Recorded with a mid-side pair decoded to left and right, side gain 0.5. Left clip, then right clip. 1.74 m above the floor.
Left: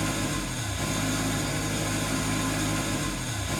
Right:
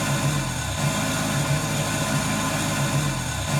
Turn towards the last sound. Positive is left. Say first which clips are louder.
# right 4 dB
turn(degrees=-60)